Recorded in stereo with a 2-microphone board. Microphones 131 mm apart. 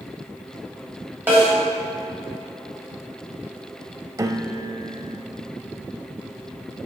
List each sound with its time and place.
1.3 s a snare drum: 15° right (ahead or behind), 3.5 m
4.2 s a piano: 25° right (ahead or behind), 0.5 m